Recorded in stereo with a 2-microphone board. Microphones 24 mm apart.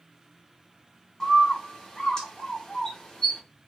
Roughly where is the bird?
Left.